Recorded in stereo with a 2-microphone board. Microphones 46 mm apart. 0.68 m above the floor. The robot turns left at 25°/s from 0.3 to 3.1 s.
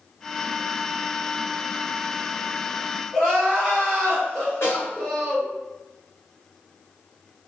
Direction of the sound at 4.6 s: 75° left (ahead or behind).